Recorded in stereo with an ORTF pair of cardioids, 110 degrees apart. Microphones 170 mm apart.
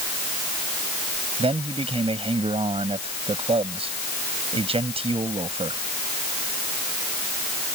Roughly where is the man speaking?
Ahead right.